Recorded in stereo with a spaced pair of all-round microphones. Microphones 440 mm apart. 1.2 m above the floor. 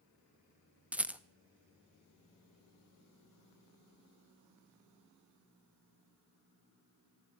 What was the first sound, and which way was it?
A rattle, 5° right (ahead or behind).